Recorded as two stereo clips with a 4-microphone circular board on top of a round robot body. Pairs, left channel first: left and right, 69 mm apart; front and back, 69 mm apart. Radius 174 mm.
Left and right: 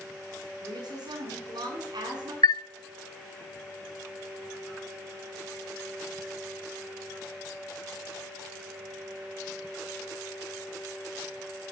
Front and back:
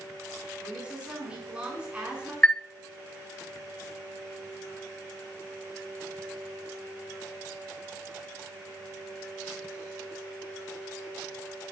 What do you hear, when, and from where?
0.6 s a woman speaking: 105° right, 5.5 m
2.4 s a chime: 80° left, 0.5 m